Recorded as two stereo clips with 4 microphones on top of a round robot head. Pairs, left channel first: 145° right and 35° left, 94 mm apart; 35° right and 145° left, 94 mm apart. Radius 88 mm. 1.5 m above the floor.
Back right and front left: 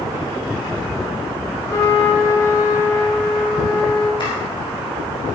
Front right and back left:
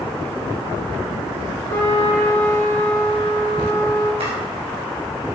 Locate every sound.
1.7 s a trumpet: 90° right, 4.5 m
4.2 s chopping: 175° left, 6 m